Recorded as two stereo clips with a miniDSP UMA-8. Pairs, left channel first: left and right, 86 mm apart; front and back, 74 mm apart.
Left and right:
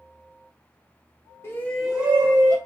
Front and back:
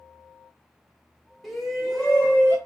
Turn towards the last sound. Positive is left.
turn(degrees=-80)